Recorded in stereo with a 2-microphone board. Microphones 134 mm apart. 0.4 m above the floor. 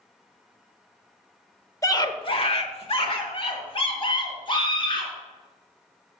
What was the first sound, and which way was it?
A scream, 25° left (ahead or behind).